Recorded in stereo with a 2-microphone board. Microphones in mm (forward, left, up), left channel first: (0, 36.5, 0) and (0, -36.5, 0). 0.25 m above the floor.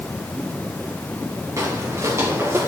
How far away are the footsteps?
About 3 m.